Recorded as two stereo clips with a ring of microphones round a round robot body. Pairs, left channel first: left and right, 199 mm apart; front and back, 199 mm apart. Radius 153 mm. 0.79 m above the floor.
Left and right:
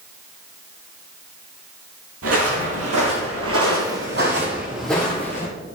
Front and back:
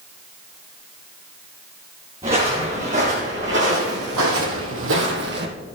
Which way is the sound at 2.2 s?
105° right.